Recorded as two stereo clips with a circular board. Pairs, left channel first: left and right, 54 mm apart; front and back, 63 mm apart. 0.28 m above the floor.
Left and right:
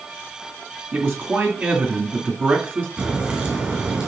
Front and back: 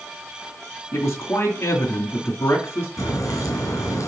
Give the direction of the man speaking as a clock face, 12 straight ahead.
1 o'clock.